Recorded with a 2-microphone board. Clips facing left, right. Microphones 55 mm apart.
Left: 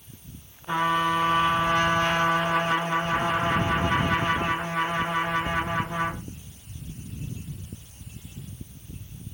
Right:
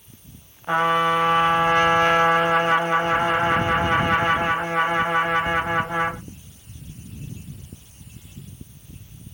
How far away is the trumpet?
About 1.6 m.